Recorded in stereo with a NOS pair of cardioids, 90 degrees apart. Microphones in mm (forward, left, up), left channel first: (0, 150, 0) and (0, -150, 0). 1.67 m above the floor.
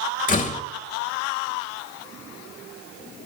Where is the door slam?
25° left, 1.6 m.